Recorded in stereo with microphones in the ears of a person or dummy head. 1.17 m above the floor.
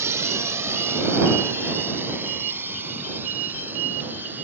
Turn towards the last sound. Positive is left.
turn(degrees=-5)  # may be behind; listen again after turning